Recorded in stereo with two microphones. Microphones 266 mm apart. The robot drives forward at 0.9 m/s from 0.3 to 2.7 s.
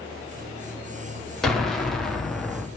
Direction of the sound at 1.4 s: Centre (ahead or behind).